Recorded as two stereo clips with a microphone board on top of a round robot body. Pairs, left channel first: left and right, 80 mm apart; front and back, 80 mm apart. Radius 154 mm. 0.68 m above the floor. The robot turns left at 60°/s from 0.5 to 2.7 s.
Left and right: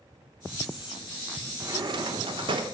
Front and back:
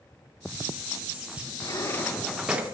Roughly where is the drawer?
Ahead right.